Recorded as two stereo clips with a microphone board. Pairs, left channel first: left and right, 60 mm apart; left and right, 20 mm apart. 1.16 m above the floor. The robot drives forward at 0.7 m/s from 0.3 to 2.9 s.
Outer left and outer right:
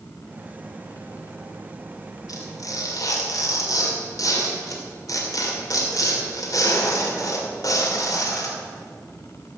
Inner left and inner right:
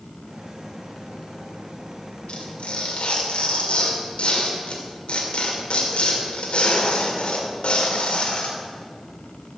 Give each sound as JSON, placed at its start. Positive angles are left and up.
{"t": 2.3, "sound": "tearing paper", "side_deg": 70, "distance_m": 2.5}